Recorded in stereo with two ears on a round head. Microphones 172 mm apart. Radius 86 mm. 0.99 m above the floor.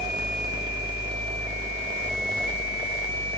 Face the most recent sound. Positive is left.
No sound to turn to.